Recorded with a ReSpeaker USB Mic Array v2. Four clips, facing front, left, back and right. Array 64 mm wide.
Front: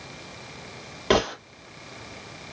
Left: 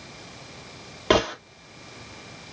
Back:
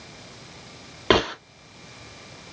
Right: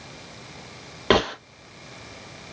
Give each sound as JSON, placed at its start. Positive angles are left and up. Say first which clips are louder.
{"t": 1.1, "sound": "a gunshot", "louder": "right 1 dB, back 2 dB", "azimuth_deg": -150, "distance_m": 0.8}